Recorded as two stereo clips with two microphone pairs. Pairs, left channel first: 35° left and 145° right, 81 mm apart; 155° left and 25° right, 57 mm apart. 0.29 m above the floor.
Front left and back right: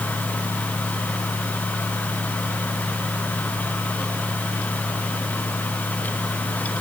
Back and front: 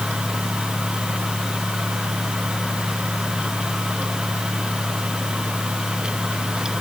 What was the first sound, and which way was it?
Only background noise.